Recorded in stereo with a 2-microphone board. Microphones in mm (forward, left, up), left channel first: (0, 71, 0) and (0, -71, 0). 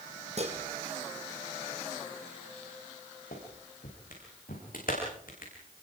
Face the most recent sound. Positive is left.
turn(degrees=75)  # may be behind; listen again after turning